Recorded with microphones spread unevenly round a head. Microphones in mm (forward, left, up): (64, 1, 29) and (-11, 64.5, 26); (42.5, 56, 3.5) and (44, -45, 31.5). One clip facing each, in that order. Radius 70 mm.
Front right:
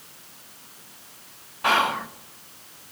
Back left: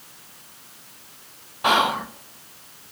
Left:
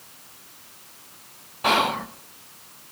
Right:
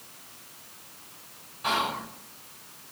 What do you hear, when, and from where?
1.6 s whispering: 70° left, 1.1 m